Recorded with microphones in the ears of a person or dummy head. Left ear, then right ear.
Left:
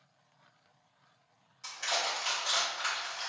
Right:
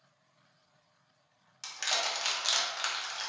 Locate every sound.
1.6 s crushing: 50° right (ahead or behind), 1.0 m